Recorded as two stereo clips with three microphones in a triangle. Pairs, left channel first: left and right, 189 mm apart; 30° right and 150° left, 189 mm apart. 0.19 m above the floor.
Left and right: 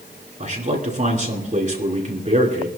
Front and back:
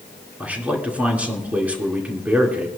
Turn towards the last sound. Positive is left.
turn(degrees=-130)